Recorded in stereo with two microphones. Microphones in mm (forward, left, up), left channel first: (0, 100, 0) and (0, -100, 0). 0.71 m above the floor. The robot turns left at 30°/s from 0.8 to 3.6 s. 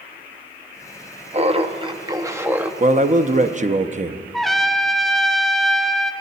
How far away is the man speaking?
About 0.5 m.